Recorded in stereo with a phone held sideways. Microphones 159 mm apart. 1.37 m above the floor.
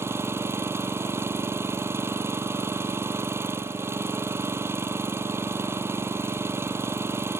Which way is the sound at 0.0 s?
15° right (ahead or behind).